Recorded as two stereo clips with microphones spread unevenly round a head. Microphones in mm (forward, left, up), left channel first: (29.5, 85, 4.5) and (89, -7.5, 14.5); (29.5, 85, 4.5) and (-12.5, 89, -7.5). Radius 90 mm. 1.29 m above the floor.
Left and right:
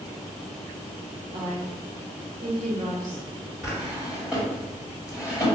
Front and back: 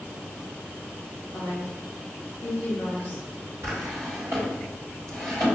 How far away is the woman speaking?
About 1.2 m.